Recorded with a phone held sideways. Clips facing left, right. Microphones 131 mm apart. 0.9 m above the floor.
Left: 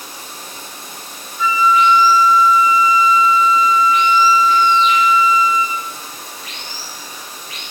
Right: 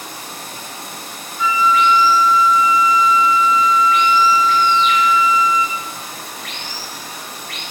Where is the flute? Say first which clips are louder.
Left 1 dB; 25° right (ahead or behind), 3.5 m.